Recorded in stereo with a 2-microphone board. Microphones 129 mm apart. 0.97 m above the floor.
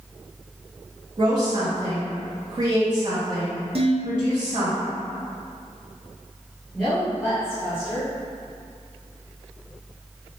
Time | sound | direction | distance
1.2 | a woman speaking | 35° right (ahead or behind) | 0.8 m
3.8 | dishes clattering | 50° right (ahead or behind) | 0.7 m
6.7 | a woman speaking | centre (ahead or behind) | 1.6 m